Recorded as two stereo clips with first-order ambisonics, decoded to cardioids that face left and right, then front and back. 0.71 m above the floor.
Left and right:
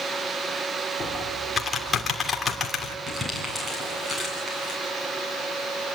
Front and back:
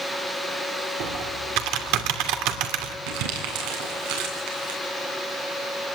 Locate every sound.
1.0 s typing on a keyboard: 160° left, 2.5 m
3.1 s crumpling: 175° right, 8.5 m